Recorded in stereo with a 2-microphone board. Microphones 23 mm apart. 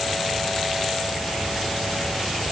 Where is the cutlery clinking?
I don't hear cutlery clinking.